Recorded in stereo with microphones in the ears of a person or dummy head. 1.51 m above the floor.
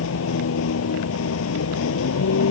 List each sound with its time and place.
0.0 s a vehicle: 85° left